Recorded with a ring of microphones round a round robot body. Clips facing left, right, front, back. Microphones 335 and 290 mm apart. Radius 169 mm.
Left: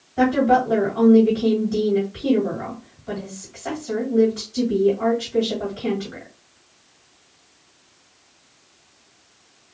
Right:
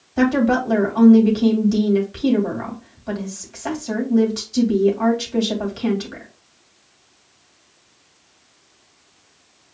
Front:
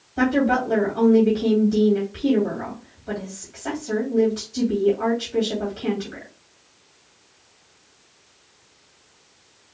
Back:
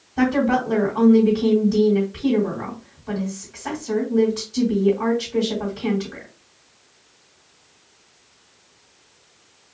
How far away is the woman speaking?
About 2 m.